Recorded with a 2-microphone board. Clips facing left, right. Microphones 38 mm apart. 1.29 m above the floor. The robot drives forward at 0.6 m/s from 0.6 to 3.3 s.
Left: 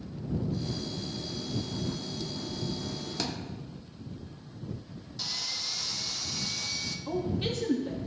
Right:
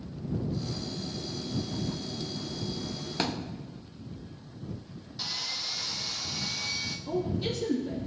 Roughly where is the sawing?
Centre.